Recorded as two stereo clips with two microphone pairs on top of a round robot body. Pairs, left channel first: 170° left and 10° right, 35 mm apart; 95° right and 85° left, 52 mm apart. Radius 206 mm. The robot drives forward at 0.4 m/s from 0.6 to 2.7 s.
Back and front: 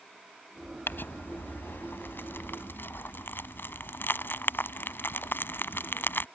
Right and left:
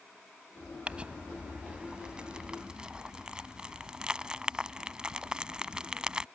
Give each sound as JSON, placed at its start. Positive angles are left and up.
{"t": 0.9, "sound": "crumpling", "azimuth_deg": 155}